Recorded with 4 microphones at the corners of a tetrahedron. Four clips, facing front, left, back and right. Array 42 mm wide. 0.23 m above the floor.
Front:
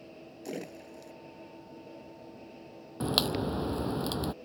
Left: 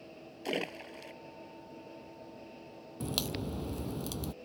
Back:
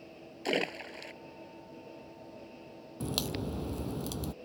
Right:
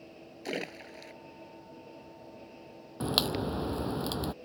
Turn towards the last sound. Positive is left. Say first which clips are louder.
# right 6 dB, front 6 dB
turn(degrees=-45)